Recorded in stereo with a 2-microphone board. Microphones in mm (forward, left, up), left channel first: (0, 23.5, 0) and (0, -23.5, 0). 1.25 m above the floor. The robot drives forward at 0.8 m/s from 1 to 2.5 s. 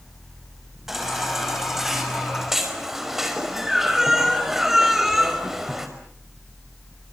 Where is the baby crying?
5° right (ahead or behind), 6 m; by 5.9 s 10° right (ahead or behind), 5 m.